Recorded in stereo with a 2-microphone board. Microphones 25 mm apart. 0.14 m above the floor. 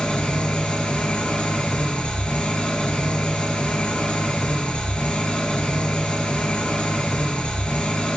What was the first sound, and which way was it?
An engine running, 50° left (ahead or behind).